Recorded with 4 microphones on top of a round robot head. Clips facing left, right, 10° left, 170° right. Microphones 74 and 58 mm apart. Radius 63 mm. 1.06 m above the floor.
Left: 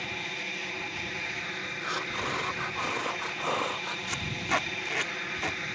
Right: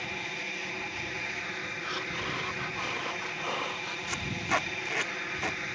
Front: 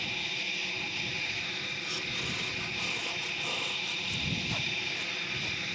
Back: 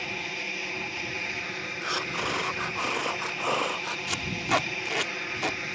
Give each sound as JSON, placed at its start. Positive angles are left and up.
{"t": 0.0, "sound": "an aircraft", "azimuth_deg": -175}
{"t": 1.8, "sound": "breathing", "azimuth_deg": 160}
{"t": 4.1, "sound": "tape being pulled", "azimuth_deg": 180}